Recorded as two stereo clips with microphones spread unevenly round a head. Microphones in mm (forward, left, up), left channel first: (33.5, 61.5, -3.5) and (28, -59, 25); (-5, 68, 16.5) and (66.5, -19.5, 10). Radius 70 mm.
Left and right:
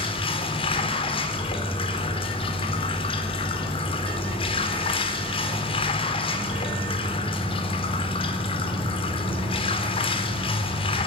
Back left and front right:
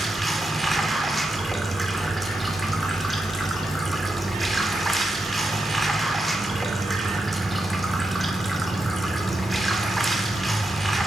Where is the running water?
40° left, 3.5 m.